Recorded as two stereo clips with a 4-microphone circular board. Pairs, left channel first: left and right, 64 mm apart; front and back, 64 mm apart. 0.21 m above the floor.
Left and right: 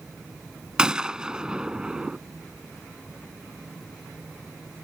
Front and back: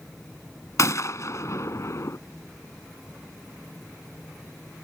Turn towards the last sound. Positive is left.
turn(degrees=-15)